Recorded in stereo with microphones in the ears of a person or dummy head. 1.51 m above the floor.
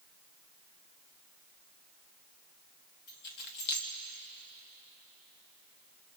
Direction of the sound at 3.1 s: 60° left (ahead or behind).